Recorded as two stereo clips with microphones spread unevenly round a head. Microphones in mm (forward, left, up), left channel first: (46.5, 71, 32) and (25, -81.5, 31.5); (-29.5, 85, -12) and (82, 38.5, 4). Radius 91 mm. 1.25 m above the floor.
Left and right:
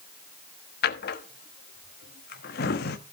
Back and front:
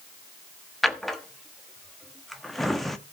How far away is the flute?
No flute in this recording.